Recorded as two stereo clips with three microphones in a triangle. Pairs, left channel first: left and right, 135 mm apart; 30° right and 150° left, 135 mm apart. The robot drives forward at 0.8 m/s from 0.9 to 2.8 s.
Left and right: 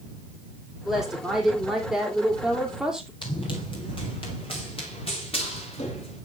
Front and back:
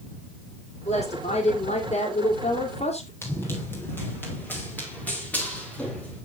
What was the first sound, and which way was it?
A woman speaking, 5° right.